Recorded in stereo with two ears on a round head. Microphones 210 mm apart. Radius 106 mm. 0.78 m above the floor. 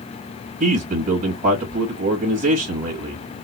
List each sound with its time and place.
0.6 s a man speaking: 35° right (ahead or behind), 1.3 m